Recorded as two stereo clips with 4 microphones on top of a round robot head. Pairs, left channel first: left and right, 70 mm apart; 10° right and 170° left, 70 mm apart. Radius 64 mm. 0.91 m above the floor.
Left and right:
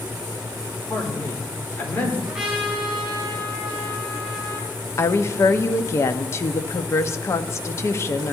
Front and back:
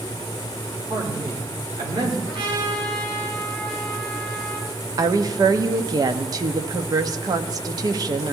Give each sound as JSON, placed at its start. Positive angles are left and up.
{"t": 0.9, "sound": "a man speaking", "azimuth_deg": 150, "distance_m": 3.5}
{"t": 2.3, "sound": "a trumpet", "azimuth_deg": -170, "distance_m": 5.5}
{"t": 5.0, "sound": "a woman speaking", "azimuth_deg": 140, "distance_m": 1.0}